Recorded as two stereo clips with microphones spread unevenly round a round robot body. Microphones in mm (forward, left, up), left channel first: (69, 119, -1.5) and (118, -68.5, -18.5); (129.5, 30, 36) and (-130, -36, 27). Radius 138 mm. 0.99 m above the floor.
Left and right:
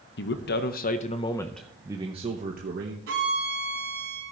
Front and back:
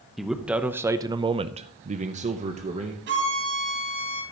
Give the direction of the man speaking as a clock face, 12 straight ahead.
8 o'clock.